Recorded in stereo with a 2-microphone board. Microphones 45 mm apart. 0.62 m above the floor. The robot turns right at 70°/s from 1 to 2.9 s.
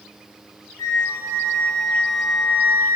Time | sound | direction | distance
0.8 | a flute | 95° left | 0.6 m